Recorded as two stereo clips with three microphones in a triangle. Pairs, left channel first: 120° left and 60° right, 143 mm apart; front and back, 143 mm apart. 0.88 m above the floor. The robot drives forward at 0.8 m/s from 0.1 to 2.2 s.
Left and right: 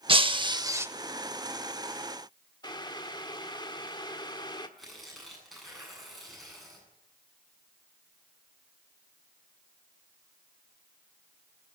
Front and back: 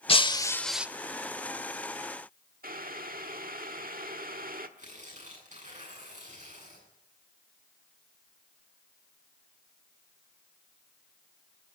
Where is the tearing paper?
150° right, 8 m.